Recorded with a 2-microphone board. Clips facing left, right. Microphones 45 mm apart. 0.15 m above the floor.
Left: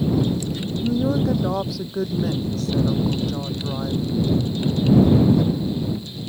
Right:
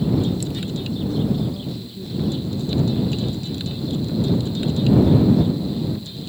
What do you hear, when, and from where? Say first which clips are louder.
0.8 s a woman speaking: left 5 dB; 75° left (ahead or behind)